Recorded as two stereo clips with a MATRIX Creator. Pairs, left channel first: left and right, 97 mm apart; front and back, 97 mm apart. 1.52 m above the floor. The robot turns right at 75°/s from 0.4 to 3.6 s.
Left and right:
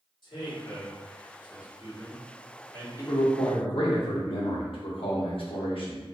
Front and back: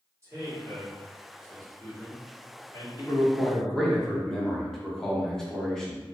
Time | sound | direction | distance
0.2 | a man speaking | 120° left | 1.3 m
3.0 | a man speaking | 35° left | 0.7 m